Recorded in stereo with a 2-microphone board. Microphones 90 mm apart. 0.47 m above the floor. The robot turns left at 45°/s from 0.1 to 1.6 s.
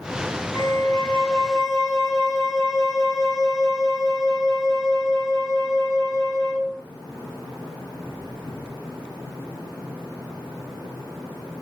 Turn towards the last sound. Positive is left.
turn(degrees=-5)